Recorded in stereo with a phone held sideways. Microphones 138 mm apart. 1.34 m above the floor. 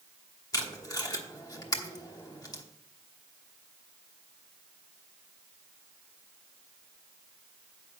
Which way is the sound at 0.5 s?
25° left (ahead or behind).